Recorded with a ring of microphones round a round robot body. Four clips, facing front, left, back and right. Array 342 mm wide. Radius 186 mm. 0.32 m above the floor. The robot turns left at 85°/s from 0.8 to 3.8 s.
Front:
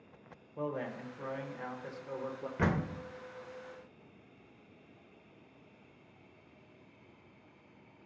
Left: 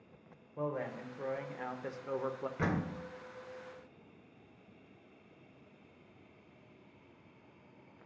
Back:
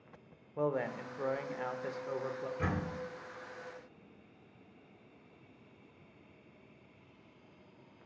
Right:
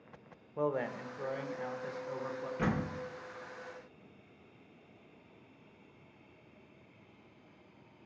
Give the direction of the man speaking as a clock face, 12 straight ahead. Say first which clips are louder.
Right 4 dB, back 4 dB; 4 o'clock.